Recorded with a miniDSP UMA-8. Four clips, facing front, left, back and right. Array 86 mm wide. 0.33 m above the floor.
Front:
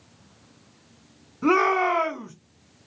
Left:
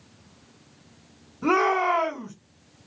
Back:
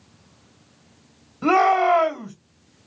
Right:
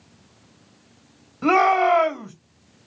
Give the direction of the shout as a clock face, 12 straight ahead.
5 o'clock.